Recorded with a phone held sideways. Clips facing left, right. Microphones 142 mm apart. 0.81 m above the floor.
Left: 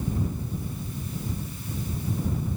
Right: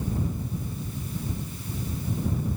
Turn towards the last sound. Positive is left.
No sound to turn to.